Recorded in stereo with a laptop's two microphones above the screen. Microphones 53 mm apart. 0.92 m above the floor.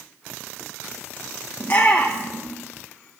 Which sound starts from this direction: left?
A shout, at 1.6 s.